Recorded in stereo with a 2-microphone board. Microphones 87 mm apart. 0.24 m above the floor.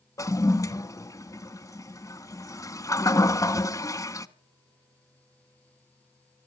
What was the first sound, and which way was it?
A toilet flushing, 40° left (ahead or behind).